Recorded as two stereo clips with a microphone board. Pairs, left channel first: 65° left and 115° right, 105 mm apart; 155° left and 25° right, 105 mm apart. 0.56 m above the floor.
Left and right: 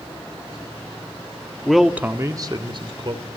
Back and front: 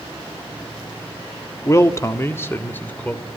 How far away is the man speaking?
About 1.4 m.